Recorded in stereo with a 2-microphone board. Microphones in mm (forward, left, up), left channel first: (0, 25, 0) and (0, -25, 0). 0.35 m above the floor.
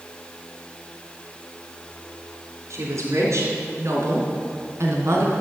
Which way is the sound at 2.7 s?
75° right (ahead or behind).